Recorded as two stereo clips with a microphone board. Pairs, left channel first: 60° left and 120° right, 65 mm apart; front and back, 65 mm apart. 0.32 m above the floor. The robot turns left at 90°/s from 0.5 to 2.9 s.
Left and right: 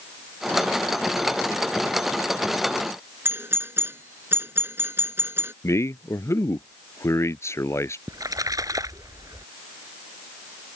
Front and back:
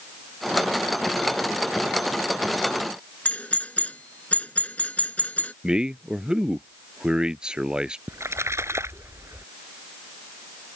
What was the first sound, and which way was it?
A doorbell, 70° right.